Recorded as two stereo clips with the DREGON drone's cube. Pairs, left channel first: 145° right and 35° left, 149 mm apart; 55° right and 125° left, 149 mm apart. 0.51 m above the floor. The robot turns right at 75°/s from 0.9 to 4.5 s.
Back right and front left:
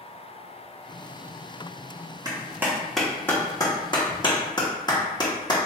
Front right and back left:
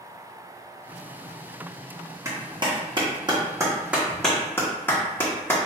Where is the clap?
70° left, 1.1 m; by 5.6 s 120° right, 1.1 m.